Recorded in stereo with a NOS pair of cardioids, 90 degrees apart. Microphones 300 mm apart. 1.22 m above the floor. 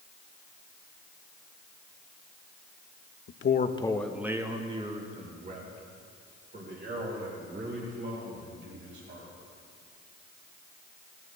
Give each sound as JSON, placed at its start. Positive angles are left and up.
{"t": 3.3, "sound": "a man speaking", "azimuth_deg": 50, "distance_m": 0.9}